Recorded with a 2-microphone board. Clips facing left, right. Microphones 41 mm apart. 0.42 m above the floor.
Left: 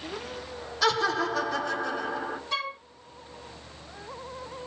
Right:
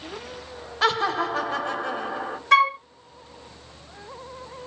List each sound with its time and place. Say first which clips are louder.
0.8 s laughter: right 2 dB; 35° right (ahead or behind), 1.6 m
2.5 s a flute: right 17 dB; 70° right (ahead or behind), 1.7 m